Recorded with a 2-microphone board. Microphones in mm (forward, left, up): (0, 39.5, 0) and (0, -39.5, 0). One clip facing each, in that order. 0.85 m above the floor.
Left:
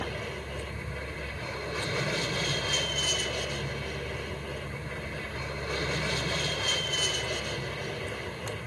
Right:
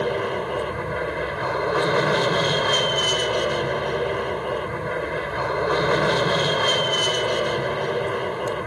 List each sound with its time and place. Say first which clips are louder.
0.0 s an aircraft: right 13 dB; 60° right (ahead or behind)